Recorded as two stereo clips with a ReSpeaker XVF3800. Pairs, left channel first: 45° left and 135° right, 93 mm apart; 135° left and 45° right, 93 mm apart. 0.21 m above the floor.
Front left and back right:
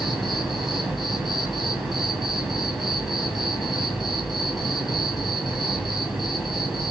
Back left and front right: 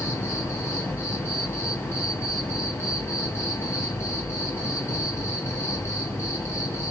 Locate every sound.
0.0 s an insect: 145° left, 1.7 m